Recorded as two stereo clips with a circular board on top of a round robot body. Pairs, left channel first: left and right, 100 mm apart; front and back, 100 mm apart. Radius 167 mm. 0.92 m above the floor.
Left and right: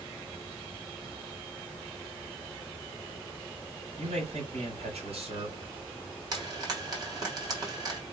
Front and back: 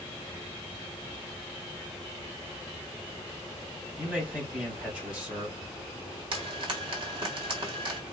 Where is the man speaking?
100° right, 4 m.